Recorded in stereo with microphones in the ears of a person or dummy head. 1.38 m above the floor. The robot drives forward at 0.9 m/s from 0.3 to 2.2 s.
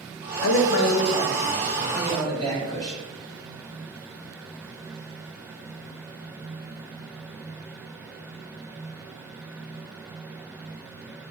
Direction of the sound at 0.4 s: 80° left.